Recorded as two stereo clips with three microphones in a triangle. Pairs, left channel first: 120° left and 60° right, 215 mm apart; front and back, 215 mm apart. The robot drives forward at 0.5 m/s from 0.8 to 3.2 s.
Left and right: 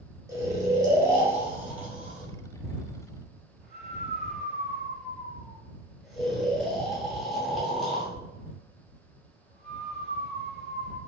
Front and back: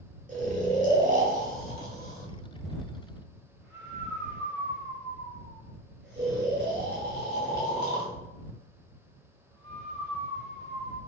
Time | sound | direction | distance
0.3 | snoring | 135° right | 2.5 m